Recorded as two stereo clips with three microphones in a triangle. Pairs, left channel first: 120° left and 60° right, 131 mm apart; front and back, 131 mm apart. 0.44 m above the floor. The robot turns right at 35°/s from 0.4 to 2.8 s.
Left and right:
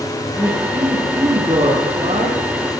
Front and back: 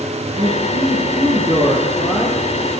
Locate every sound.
0.4 s a man speaking: 160° right, 7.5 m; by 2.4 s 90° right, 7.5 m